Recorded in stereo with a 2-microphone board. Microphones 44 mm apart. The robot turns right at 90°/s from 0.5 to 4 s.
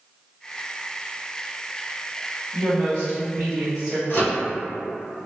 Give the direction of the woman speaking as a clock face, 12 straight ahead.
4 o'clock.